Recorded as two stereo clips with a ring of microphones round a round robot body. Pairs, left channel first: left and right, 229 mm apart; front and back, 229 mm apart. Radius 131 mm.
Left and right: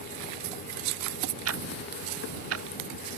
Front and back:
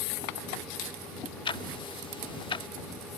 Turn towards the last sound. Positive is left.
turn(degrees=-70)